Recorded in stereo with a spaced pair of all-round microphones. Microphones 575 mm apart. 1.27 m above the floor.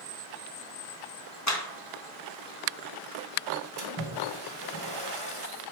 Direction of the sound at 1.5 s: 30° left (ahead or behind).